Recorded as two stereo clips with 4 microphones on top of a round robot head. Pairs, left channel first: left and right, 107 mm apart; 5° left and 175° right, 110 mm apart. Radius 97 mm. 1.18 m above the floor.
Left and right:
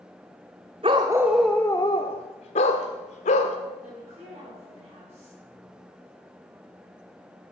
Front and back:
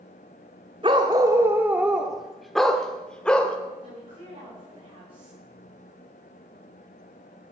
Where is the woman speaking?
125° right, 6 m.